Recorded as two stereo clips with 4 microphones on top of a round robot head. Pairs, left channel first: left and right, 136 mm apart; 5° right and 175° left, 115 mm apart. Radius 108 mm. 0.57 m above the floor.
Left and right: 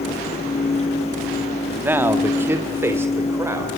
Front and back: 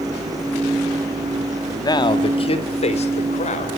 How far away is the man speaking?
About 1.5 m.